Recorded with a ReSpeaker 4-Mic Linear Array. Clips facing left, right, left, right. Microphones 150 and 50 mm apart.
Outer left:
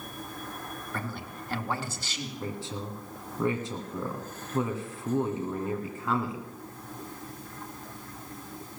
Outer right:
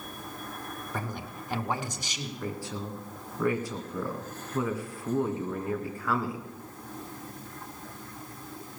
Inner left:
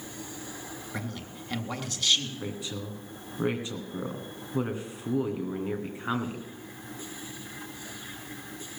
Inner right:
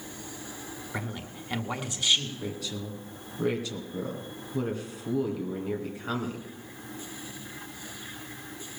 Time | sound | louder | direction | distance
0.9 | a man speaking | outer right 1 dB, inner right 2 dB | 15° right (ahead or behind) | 1.7 m
2.4 | a woman speaking | outer right 1 dB, even | 20° left (ahead or behind) | 2 m